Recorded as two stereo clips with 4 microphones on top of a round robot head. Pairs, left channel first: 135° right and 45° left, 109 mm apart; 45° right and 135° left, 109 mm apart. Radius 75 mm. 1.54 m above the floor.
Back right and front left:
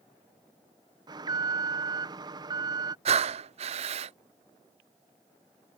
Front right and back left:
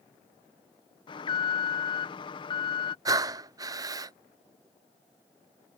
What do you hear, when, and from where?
1.1 s an alarm: 5° right
3.0 s breathing: 75° left